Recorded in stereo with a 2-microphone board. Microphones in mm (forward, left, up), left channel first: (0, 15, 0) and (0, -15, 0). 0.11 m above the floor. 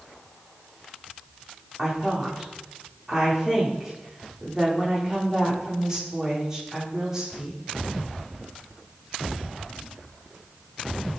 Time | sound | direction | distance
1.8 | a woman speaking | 20° right (ahead or behind) | 8 m